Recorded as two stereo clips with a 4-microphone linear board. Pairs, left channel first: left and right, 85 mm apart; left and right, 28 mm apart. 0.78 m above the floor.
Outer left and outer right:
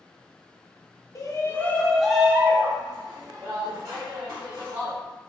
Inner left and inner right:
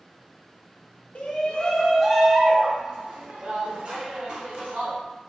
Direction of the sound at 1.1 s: 40° left (ahead or behind).